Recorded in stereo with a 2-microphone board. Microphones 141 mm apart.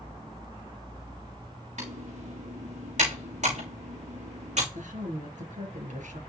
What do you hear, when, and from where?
1.8 s typing on a keyboard: 55° right (ahead or behind), 5 m
4.7 s a woman speaking: 60° right (ahead or behind), 3 m